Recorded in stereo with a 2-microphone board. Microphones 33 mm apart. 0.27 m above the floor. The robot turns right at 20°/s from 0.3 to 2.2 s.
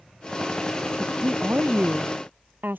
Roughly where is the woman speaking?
Right.